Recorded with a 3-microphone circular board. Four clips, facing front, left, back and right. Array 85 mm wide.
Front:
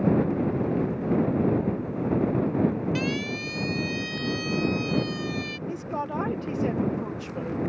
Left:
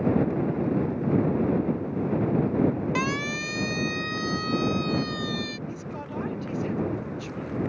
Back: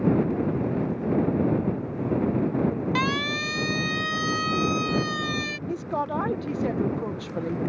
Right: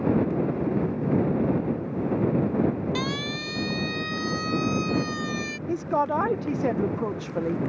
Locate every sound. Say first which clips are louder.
3.0 s a siren: left 2 dB, back 3 dB; 165° left; by 5.6 s 165° right
5.7 s a woman speaking: right 11 dB, back 4 dB; 100° right